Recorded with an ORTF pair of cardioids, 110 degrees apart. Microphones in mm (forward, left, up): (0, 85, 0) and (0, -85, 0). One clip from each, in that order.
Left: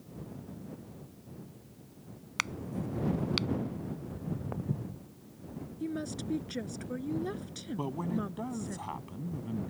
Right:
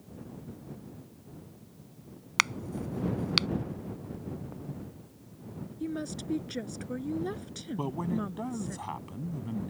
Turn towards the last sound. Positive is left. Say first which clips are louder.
# right 2 dB
turn(degrees=-10)